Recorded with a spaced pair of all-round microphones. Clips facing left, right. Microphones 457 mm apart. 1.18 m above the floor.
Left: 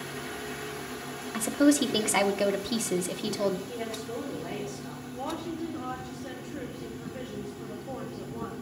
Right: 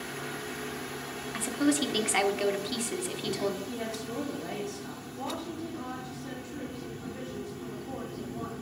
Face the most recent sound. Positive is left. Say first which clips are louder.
# left 3 dB
turn(degrees=75)  # may be behind; listen again after turning